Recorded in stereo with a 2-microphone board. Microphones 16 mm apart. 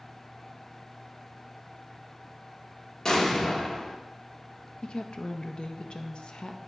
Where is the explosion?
45° left (ahead or behind), 1.1 m.